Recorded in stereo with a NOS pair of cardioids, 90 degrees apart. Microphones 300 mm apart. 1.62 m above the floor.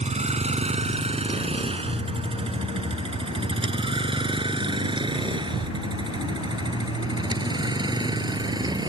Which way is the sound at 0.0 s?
20° right.